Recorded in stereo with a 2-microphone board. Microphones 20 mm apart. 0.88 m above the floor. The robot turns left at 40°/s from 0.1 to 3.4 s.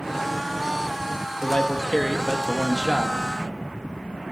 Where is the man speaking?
50° left, 0.7 m; by 3.2 s 20° right, 0.7 m.